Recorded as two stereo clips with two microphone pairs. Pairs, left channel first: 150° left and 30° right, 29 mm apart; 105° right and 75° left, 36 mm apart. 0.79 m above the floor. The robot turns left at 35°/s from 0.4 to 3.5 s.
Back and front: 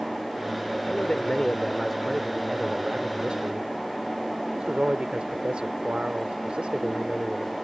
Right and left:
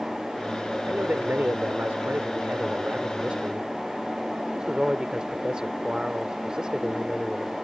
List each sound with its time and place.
0.9 s a man speaking: 105° left; by 7.5 s 10° left